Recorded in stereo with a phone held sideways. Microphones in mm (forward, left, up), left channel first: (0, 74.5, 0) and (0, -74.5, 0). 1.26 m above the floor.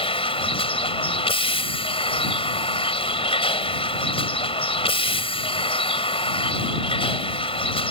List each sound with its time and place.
0.0 s a vehicle: 40° left (ahead or behind)